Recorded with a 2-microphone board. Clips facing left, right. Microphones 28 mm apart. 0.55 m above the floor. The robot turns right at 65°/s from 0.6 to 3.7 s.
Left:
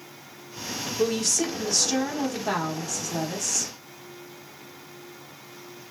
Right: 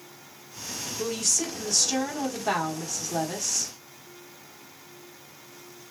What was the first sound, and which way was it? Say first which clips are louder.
A woman speaking: left 4 dB; 20° left (ahead or behind).